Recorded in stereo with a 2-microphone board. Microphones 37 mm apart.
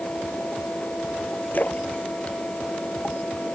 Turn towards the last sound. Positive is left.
turn(degrees=50)  # may be behind; listen again after turning